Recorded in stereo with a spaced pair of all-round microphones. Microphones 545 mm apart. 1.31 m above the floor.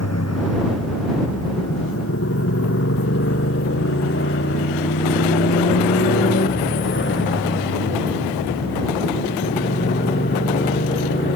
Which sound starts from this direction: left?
A motorcycle, at 0.0 s.